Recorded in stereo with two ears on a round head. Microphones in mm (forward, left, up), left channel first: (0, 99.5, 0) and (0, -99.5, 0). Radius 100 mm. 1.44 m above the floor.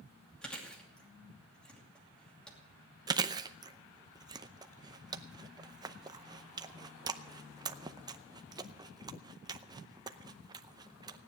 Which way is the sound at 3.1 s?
20° right (ahead or behind).